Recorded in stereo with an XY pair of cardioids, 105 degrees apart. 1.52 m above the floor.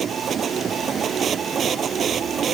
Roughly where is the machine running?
Ahead right.